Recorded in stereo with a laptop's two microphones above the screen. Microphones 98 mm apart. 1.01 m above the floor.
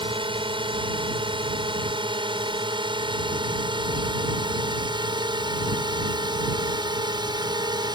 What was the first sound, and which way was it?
A drone, 60° right (ahead or behind).